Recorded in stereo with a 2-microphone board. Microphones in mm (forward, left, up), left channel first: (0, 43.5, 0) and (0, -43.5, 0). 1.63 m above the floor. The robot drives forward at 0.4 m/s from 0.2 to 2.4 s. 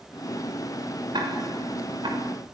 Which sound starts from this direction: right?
Ticking, at 1.1 s.